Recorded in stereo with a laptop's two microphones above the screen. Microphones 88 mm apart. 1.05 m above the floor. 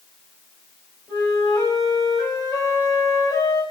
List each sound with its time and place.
1.1 s a flute: 45° left (ahead or behind), 4 m